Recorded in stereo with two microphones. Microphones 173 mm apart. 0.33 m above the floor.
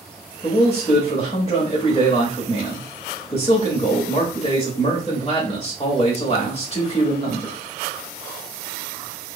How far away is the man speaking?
About 1.0 m.